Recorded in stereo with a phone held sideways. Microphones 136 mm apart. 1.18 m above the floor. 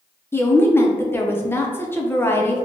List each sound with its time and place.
0.3 s a woman speaking: 15° left (ahead or behind), 0.6 m